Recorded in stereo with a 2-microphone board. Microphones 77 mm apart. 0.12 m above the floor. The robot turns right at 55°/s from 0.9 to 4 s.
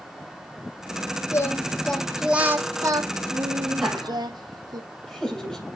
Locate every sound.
1.3 s singing: 140° left, 1.0 m; by 4.8 s 75° right, 1.0 m
3.8 s laughter: centre (ahead or behind), 4.5 m; by 5.7 s 10° left (ahead or behind), 4.5 m